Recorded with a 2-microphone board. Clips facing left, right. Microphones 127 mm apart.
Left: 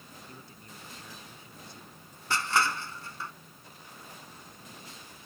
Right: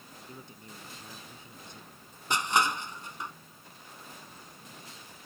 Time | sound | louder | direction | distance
0.3 | a man speaking | right 2 dB | 20° right (ahead or behind) | ?
2.3 | crushing | right 1 dB | 20° right (ahead or behind) | ?